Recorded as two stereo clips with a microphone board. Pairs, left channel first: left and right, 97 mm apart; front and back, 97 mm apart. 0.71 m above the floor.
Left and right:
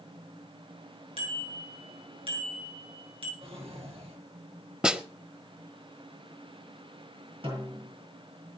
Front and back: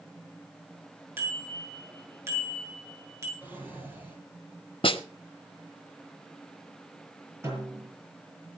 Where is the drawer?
105° right, 6.5 m.